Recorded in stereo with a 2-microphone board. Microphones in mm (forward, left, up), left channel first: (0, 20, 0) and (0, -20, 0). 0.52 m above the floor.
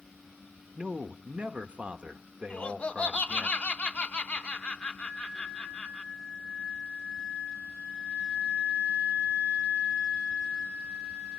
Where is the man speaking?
30° right (ahead or behind), 1.0 m.